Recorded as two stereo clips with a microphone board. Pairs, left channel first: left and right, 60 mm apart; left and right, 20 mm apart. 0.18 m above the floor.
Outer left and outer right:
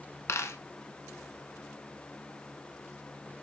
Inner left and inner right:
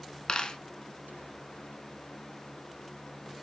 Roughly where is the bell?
No bell in this recording.